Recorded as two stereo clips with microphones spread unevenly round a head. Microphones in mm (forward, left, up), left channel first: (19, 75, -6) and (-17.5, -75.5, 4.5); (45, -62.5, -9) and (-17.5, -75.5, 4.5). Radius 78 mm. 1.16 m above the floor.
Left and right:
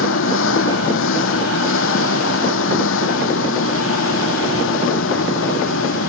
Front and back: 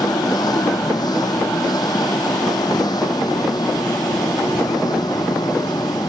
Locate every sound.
0.0 s an engine running: 75° left